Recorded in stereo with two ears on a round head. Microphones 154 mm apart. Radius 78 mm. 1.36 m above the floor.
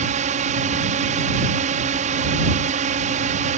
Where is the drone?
45° right (ahead or behind).